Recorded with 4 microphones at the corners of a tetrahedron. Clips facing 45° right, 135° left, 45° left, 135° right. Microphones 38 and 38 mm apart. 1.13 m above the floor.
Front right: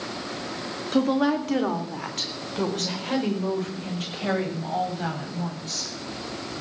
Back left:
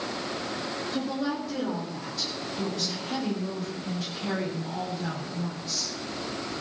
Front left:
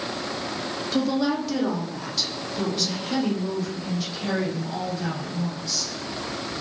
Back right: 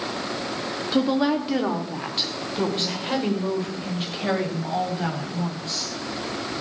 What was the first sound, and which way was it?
A woman speaking, 70° right.